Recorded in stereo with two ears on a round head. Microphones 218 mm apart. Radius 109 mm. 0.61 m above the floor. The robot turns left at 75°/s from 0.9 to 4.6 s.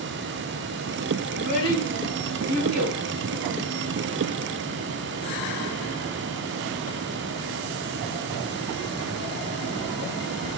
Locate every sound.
1.3 s a child speaking: 50° left (ahead or behind), 5 m; by 3.0 s 75° right (ahead or behind), 5 m